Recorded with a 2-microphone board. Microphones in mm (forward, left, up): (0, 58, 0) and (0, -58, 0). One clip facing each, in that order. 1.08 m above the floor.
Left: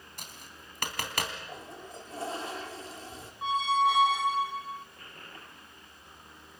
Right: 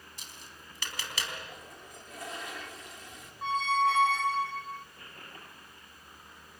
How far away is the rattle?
No rattle in this recording.